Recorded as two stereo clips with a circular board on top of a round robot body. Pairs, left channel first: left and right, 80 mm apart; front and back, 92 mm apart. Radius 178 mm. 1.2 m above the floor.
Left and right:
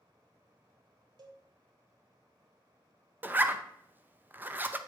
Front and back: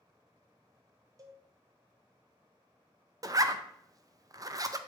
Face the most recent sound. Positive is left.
turn(degrees=-145)